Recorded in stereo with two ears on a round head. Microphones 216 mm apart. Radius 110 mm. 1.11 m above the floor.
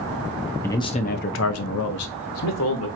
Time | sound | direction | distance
0.6 | a man speaking | 10° left (ahead or behind) | 0.7 m